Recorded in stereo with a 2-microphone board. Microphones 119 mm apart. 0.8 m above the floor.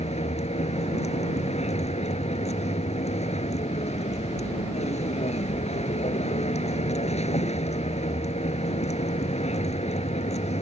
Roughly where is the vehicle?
Left.